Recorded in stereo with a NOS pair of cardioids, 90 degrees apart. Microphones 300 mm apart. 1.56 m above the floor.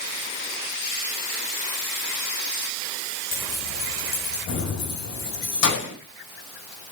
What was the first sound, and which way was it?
Keys jangling, 70° left.